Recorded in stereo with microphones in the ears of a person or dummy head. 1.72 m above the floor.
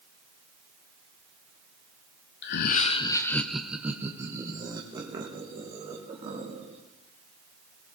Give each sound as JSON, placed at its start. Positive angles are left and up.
{"t": 2.4, "sound": "laughter", "side_deg": 50, "distance_m": 0.8}